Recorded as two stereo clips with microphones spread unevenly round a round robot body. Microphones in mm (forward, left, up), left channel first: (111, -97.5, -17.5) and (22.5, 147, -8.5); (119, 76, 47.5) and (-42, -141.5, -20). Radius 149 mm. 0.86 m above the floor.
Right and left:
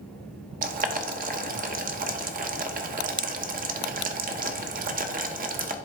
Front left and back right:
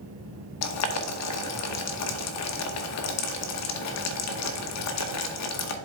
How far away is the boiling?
About 0.9 m.